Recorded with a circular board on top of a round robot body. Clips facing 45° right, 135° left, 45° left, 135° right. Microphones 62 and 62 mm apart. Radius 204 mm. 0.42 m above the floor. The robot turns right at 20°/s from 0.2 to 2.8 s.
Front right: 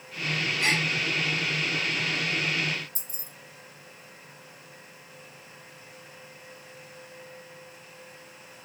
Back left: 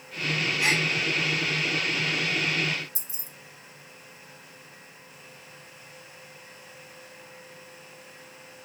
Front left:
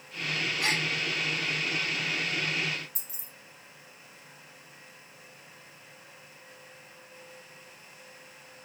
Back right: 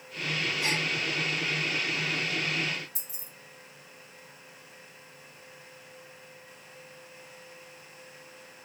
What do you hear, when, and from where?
0.6 s a gasp: 55° left, 0.8 m; by 0.9 s 60° left, 0.8 m
3.0 s keys jangling: 50° right, 0.9 m